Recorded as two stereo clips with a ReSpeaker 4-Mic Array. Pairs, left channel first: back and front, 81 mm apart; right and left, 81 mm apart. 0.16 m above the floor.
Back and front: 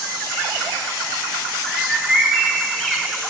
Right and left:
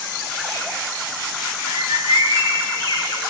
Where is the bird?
90° left, 3 m.